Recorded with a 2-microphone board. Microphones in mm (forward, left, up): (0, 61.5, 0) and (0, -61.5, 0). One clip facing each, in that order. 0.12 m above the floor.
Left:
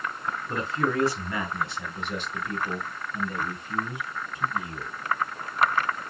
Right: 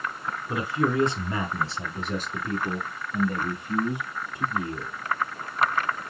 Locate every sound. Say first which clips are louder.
0.5 s a man speaking: right 2 dB; 5° right (ahead or behind), 1.2 m; by 4.9 s 55° right (ahead or behind), 2.5 m